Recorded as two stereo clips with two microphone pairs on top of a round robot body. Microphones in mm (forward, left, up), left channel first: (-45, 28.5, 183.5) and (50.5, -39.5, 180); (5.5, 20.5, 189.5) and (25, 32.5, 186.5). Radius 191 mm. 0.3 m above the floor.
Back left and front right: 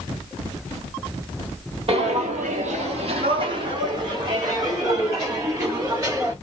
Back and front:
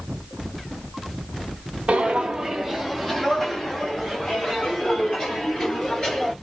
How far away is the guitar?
No guitar in this recording.